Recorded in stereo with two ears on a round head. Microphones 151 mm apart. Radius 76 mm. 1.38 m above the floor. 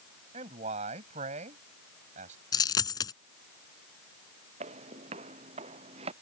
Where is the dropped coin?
25° left (ahead or behind).